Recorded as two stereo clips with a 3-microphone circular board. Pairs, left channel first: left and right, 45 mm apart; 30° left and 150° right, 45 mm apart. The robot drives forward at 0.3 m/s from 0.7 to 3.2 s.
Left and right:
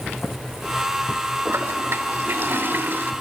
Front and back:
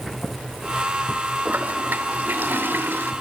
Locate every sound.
1.4 s a toilet flushing: 105° right, 1.4 m; by 3.1 s 125° right, 1.6 m